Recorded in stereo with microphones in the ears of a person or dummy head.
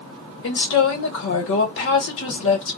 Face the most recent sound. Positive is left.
turn(degrees=65)  # may be behind; listen again after turning